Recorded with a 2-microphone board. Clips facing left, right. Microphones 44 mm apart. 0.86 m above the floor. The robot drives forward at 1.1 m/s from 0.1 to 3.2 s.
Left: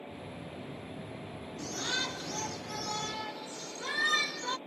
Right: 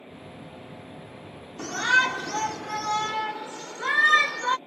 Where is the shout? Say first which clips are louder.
Right 14 dB; 75° right (ahead or behind); by 4.6 s 50° right (ahead or behind).